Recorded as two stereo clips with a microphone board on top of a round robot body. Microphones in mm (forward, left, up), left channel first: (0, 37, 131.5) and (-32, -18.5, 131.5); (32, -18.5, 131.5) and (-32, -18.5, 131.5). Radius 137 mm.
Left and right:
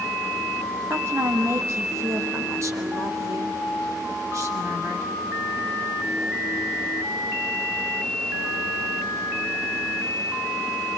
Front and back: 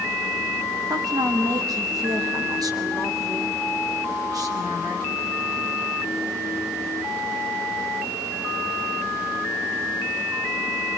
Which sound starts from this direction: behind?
A woman speaking, at 0.9 s.